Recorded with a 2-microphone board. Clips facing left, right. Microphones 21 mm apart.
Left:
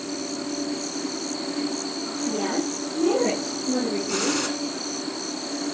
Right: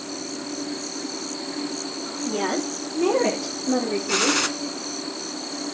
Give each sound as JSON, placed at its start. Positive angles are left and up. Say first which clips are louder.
{"t": 2.2, "sound": "a woman speaking", "louder": "right 1 dB", "side_deg": -80, "distance_m": 7.0}
{"t": 4.1, "sound": "a gunshot", "louder": "right 7 dB", "side_deg": -35, "distance_m": 1.3}